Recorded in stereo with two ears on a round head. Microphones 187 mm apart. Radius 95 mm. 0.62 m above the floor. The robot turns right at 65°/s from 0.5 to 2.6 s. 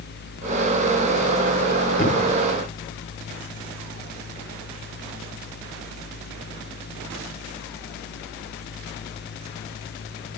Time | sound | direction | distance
2.0 | a thud | 40° left (ahead or behind) | 3.5 m